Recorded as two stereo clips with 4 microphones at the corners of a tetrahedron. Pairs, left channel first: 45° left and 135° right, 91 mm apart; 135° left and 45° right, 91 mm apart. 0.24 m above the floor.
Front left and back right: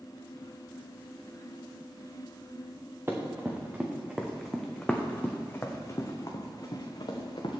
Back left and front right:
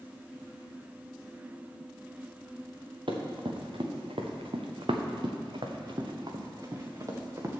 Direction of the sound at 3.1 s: 70° right.